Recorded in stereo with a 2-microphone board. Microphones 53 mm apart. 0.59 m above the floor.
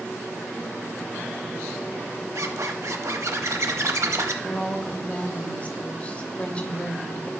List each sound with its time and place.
2.4 s a zipper: 70° right (ahead or behind), 0.8 m
4.4 s a woman speaking: 25° left (ahead or behind), 0.9 m